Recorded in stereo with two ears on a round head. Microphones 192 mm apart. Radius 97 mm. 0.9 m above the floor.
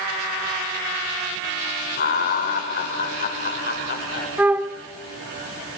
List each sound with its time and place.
2.0 s laughter: 45° left (ahead or behind), 4.5 m
4.4 s a flute: 5° right (ahead or behind), 0.8 m